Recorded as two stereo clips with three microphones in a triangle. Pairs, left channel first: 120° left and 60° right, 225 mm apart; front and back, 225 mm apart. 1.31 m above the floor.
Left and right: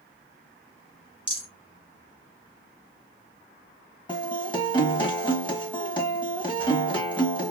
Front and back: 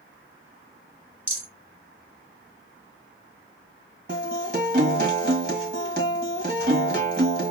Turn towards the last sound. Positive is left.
turn(degrees=175)